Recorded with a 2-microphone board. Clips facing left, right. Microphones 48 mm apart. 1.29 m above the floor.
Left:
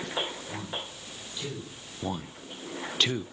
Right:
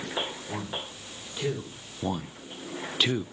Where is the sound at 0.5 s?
30° right (ahead or behind), 5.5 m.